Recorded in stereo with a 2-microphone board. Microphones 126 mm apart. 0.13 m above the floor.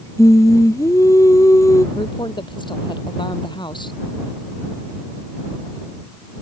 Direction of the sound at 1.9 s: 35° left (ahead or behind).